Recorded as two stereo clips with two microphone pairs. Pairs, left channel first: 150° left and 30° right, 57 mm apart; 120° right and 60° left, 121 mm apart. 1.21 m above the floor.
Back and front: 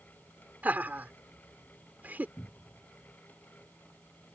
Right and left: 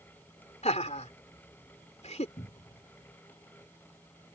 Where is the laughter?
95° right.